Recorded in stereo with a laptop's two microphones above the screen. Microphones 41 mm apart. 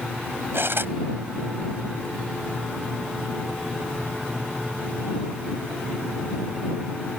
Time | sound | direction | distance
0.5 | cutlery clinking | 65° right (ahead or behind) | ?